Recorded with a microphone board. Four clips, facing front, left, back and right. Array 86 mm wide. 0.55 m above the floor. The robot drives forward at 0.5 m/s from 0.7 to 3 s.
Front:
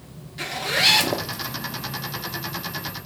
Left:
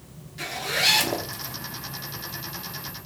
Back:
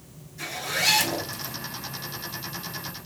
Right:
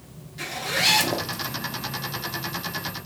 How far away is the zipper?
About 1.0 m.